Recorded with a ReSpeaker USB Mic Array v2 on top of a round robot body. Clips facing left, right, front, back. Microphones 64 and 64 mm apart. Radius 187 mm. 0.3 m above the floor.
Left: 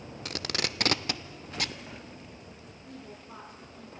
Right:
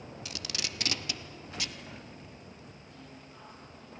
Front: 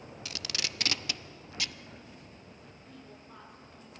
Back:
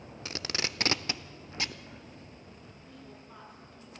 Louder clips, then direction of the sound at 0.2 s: Left 8 dB, back 4 dB; 125° left.